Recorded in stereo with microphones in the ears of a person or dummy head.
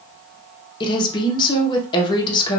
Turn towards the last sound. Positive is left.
turn(degrees=20)  # may be behind; listen again after turning